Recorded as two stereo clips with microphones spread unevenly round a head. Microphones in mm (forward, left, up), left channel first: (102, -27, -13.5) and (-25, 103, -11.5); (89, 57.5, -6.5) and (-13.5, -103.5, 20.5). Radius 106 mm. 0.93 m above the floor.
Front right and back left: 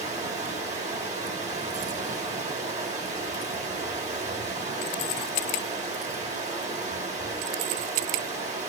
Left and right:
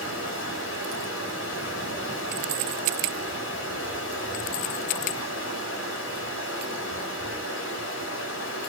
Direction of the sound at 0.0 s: 85° left.